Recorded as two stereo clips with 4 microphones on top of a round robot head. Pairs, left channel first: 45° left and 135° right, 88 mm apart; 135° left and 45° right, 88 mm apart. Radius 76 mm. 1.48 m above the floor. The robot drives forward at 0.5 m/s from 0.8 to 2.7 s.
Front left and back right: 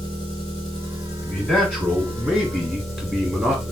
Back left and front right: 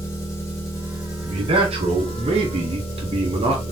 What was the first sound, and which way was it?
An engine running, 80° left.